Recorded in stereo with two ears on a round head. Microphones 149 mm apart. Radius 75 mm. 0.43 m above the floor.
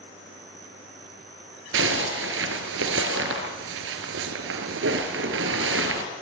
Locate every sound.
1.7 s a zipper: 85° right, 2.5 m